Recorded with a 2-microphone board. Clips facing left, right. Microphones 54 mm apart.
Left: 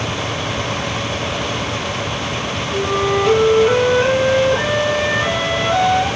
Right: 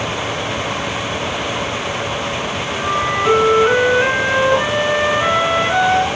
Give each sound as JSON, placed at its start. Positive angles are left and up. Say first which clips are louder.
{"t": 2.7, "sound": "a flute", "louder": "left 2 dB", "side_deg": -25, "distance_m": 2.5}